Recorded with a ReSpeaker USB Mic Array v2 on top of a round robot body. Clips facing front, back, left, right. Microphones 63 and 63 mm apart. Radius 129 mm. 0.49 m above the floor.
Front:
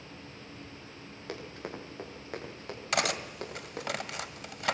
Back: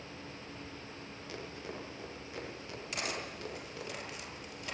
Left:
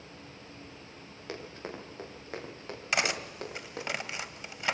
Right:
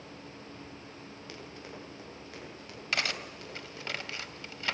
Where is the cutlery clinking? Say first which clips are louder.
Front 9 dB, left 3 dB; 20° left, 1.8 m.